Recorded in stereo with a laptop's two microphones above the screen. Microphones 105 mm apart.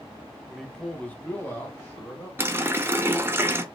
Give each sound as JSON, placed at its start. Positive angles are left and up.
{"t": 0.5, "sound": "a man speaking", "side_deg": 0, "distance_m": 1.3}
{"t": 2.4, "sound": "a running tap", "side_deg": -20, "distance_m": 0.5}